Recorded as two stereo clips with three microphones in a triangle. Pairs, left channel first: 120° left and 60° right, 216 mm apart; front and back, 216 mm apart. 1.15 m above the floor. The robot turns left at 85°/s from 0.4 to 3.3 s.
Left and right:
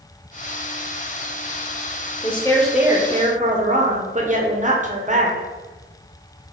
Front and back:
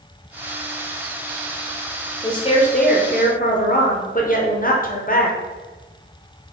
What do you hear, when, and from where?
2.2 s a woman speaking: 70° left, 0.8 m; by 5.4 s 20° right, 0.8 m